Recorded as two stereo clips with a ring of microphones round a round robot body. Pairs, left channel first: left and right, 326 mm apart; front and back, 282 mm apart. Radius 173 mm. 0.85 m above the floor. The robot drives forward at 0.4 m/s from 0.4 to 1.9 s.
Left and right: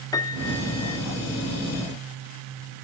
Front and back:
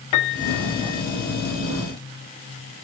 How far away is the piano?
About 1.4 m.